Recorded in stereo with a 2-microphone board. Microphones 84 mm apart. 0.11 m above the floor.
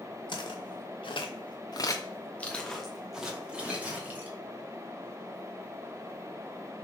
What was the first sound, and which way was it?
Footsteps, 70° left (ahead or behind).